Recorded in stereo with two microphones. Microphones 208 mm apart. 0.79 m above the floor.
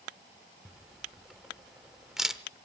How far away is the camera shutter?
About 0.8 m.